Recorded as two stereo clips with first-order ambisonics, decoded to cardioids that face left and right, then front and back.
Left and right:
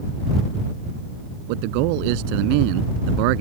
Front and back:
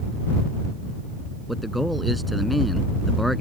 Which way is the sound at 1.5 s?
90° right.